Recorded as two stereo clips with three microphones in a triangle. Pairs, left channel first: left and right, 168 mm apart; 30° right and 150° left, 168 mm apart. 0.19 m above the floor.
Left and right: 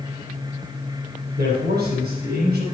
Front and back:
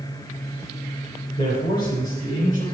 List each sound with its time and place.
1.4 s a man speaking: 65° right, 5 m; by 2.6 s 70° right, 4 m